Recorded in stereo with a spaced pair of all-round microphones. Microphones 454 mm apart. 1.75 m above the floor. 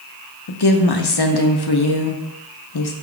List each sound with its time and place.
0.5 s a woman speaking: 55° left (ahead or behind), 0.5 m